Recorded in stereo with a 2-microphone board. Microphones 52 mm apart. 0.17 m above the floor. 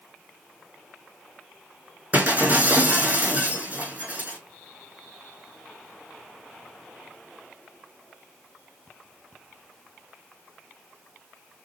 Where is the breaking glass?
35° right (ahead or behind), 2.5 m.